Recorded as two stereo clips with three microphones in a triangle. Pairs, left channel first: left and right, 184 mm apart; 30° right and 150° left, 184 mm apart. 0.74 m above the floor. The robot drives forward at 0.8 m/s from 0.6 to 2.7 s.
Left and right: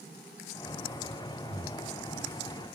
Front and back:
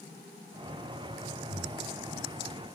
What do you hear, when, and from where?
1.5 s breathing: 50° right, 1.3 m; by 1.9 s 60° right, 1.1 m